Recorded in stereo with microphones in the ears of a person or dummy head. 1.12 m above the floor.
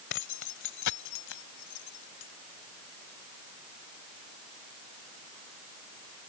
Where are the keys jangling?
55° left (ahead or behind); by 2.3 s 75° left (ahead or behind).